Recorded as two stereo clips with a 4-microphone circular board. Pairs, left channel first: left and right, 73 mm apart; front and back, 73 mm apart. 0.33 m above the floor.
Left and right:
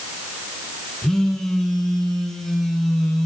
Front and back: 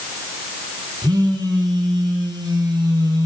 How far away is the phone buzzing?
About 2.5 m.